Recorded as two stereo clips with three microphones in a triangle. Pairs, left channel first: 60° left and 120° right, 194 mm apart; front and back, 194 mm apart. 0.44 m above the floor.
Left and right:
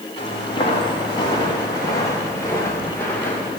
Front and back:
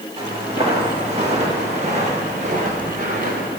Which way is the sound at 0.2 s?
120° left.